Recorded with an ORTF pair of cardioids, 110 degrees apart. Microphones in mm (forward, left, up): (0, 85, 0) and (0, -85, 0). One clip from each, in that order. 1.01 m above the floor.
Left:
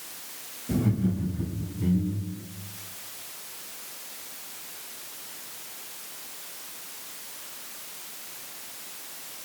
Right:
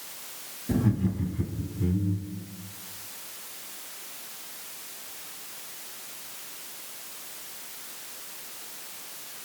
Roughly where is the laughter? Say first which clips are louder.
Even; ahead.